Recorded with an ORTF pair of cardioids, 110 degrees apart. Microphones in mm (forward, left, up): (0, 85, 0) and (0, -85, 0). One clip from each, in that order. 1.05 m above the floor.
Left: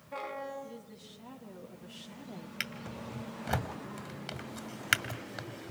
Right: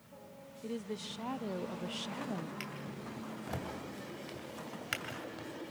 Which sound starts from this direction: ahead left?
A drawer, at 2.6 s.